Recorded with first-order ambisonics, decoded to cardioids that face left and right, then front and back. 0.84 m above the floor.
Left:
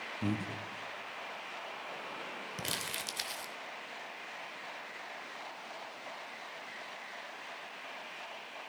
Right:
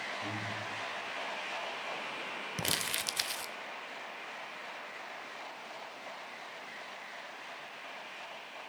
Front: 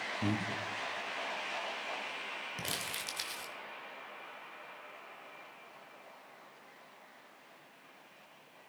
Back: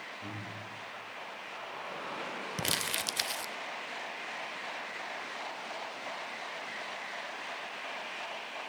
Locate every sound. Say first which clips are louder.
0.2 s breathing: right 1 dB, front 6 dB; 45° left, 0.7 m
2.6 s crumpling: right 4 dB, back 8 dB; 150° right, 0.6 m